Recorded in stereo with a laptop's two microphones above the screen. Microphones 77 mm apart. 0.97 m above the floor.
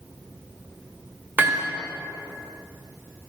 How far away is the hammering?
About 2 m.